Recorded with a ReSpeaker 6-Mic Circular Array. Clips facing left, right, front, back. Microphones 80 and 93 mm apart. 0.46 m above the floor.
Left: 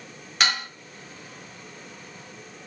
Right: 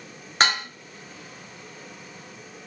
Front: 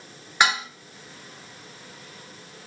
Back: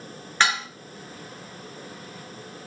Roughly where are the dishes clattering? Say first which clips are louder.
Right 3 dB, front 1 dB; right.